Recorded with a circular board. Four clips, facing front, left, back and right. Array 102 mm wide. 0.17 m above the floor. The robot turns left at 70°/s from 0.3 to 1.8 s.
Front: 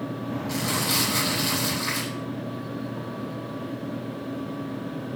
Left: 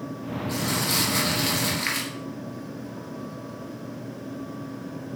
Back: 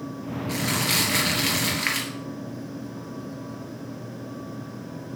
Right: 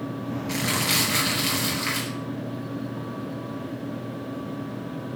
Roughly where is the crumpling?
Right.